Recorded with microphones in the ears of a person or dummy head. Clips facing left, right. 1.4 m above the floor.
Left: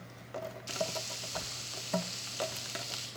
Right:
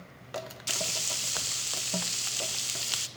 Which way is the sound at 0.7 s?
65° right (ahead or behind).